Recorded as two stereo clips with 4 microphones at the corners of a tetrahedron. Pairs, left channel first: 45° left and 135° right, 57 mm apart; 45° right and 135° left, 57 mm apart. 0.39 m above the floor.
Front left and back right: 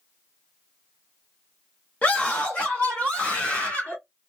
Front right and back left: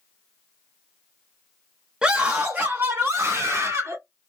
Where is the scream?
80° left, 0.9 m; by 4.0 s 100° left, 1.9 m.